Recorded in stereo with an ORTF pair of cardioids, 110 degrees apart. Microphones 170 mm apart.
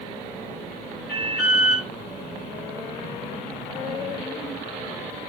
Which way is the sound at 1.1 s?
70° left.